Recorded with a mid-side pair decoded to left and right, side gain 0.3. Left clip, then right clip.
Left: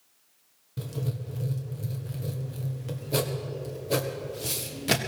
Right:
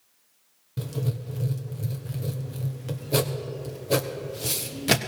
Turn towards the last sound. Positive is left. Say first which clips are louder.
# right 3 dB
turn(degrees=-35)